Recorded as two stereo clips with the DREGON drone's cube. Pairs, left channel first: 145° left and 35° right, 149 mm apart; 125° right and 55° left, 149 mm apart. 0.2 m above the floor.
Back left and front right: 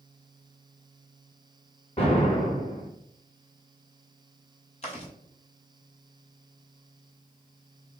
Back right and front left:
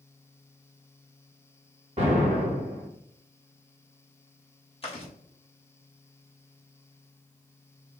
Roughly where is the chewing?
Behind.